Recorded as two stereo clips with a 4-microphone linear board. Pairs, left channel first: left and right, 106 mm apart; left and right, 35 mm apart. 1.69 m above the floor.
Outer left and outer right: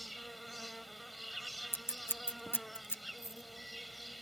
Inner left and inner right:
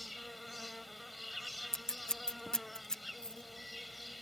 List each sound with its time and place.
0.0 s an insect: centre (ahead or behind)
1.7 s scissors: 20° left (ahead or behind)
3.2 s a dropped coin: 30° left (ahead or behind)